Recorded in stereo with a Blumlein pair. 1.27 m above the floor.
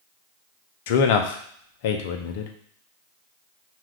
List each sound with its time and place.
0.9 s a man speaking: 50° left, 0.5 m